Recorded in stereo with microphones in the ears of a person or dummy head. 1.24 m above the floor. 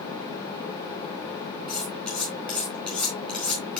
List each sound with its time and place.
1.7 s cutlery clinking: 5° left (ahead or behind), 4 m